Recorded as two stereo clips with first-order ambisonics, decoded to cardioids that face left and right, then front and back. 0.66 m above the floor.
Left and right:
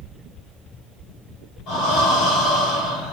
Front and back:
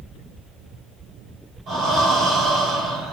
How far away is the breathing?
About 2 m.